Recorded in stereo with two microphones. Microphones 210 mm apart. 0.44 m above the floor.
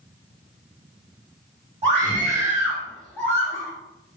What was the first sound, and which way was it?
A scream, 25° right (ahead or behind).